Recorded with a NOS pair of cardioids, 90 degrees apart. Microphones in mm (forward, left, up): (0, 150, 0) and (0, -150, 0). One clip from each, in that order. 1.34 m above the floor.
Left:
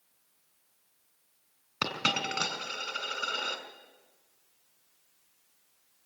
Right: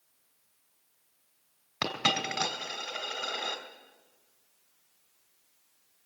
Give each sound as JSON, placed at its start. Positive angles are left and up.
{"t": 1.8, "sound": "a dropped coin", "azimuth_deg": -5, "distance_m": 3.0}